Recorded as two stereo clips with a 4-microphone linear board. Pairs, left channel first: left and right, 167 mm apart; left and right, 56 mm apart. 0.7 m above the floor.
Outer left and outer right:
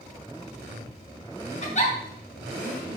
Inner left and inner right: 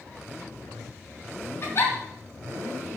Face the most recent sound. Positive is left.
turn(degrees=45)  # may be behind; listen again after turning